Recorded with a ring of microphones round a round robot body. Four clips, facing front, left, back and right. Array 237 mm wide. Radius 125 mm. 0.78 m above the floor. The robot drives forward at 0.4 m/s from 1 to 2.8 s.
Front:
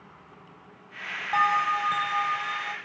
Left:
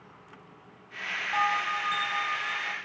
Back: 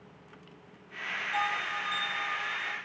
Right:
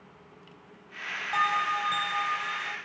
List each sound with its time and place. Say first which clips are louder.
1.3 s a bell: right 1 dB, front 10 dB; 15° right, 1.8 m; by 2.8 s 20° right, 1.3 m